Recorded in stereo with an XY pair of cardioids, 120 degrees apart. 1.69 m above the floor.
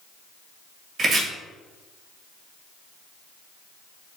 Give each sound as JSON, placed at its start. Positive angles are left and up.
{"t": 1.0, "sound": "chopping", "azimuth_deg": -35, "distance_m": 1.9}